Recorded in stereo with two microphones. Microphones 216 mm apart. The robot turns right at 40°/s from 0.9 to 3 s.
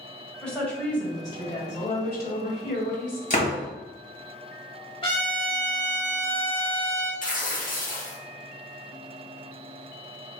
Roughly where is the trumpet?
Left.